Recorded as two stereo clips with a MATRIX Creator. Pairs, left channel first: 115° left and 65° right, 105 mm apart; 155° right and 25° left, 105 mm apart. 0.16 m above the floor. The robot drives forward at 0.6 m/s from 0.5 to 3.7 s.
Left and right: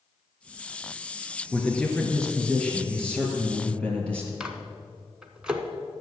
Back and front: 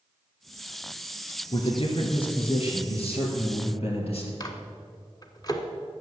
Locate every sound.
1.5 s a man speaking: 165° right, 2.5 m; by 4.3 s 170° right, 3.5 m
4.4 s a microwave: 145° right, 1.2 m